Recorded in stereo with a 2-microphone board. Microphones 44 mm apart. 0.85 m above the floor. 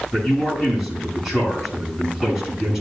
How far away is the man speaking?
About 6.5 m.